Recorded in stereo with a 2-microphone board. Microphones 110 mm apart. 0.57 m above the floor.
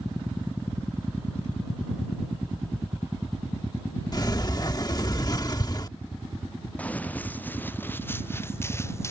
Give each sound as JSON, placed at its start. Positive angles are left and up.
{"t": 4.1, "sound": "a sliding door", "side_deg": 35}
{"t": 6.8, "sound": "running footsteps", "side_deg": 10}